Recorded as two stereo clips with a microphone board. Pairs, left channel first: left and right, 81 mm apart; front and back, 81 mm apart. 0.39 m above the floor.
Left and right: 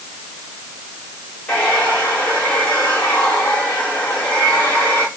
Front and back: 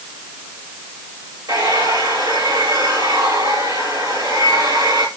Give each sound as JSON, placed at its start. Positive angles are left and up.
{"t": 1.5, "sound": "a hair dryer", "azimuth_deg": 165, "distance_m": 8.0}